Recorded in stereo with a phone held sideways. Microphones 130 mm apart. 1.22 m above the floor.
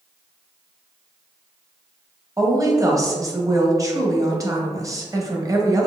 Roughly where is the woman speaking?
Right.